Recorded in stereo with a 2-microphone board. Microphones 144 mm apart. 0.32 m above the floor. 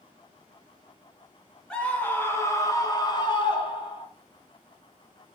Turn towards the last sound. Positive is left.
turn(degrees=40)  # may be behind; listen again after turning